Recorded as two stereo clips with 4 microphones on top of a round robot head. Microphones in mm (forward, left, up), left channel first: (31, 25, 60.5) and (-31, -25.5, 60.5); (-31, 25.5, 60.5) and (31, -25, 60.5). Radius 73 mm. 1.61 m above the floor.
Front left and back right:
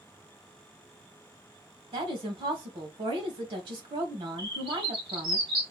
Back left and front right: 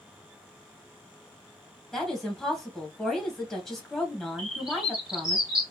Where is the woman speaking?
135° right, 1.6 m.